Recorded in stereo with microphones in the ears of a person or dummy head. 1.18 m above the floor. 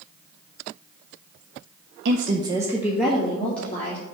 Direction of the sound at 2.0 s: 70° right (ahead or behind).